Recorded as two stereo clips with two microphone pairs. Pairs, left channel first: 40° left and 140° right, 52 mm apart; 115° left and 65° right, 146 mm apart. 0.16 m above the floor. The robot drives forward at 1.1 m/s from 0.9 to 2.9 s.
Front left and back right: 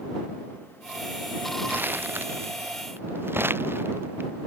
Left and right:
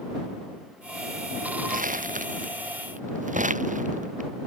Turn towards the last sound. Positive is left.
turn(degrees=-95)